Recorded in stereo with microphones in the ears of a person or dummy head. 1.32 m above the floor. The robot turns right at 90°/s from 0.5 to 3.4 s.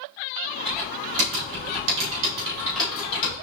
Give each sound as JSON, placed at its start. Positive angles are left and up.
{"t": 0.7, "sound": "typing on a keyboard", "azimuth_deg": 165, "distance_m": 2.5}